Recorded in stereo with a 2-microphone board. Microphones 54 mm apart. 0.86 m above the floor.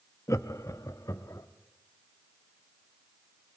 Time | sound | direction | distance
0.3 | laughter | 65° left (ahead or behind) | 0.7 m